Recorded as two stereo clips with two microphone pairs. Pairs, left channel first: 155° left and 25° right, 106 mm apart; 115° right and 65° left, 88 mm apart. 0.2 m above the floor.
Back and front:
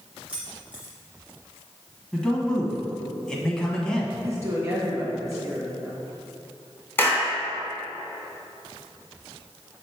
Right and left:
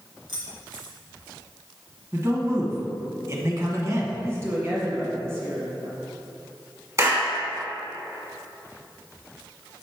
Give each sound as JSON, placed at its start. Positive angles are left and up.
{"t": 0.3, "sound": "keys jangling", "azimuth_deg": 55, "distance_m": 2.0}
{"t": 2.1, "sound": "a man speaking", "azimuth_deg": 80, "distance_m": 1.2}
{"t": 4.2, "sound": "a woman speaking", "azimuth_deg": 20, "distance_m": 1.7}
{"t": 7.0, "sound": "a clap", "azimuth_deg": 100, "distance_m": 1.4}